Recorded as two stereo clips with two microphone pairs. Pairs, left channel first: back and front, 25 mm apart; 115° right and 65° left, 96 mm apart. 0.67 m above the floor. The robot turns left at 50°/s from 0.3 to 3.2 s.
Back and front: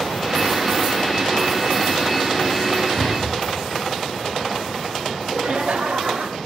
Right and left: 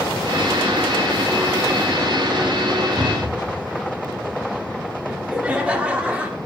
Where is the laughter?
10° right, 1.7 m.